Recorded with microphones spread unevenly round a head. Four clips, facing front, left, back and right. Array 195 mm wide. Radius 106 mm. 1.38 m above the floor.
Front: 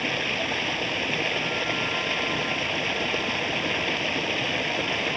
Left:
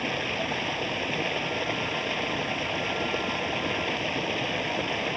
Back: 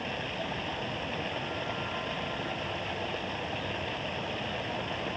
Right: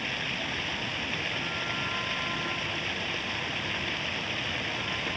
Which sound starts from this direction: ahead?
Running water, at 0.0 s.